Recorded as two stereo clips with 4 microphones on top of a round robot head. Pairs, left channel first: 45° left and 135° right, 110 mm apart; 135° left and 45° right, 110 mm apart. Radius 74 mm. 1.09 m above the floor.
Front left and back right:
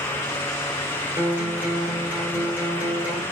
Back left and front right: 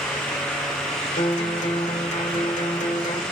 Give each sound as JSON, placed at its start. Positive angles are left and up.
{"t": 1.2, "sound": "a guitar", "azimuth_deg": 155, "distance_m": 1.2}